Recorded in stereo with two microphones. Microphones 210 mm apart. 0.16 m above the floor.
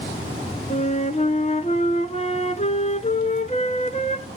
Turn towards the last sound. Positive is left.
turn(degrees=30)  # may be behind; listen again after turning